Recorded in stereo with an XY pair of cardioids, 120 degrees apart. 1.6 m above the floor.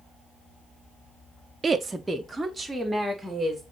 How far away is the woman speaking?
About 0.6 m.